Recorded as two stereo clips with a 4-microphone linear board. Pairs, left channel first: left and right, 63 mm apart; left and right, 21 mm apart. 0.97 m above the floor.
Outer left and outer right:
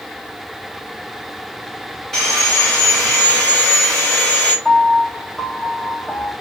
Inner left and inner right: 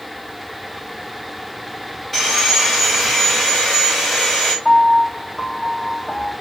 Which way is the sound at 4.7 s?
5° left (ahead or behind).